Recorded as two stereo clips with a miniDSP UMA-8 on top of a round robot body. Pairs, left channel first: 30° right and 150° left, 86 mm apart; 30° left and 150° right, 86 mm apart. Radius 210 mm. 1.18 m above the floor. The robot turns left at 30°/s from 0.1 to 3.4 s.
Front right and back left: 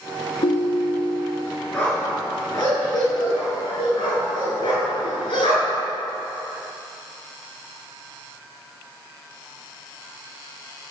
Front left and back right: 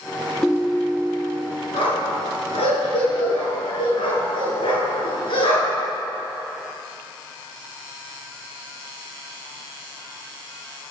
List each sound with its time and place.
0.4 s a ringtone: 60° right, 0.7 m; by 1.5 s 90° right, 0.7 m
1.7 s a dog barking: 45° left, 5.5 m; by 5.9 s 5° right, 5.5 m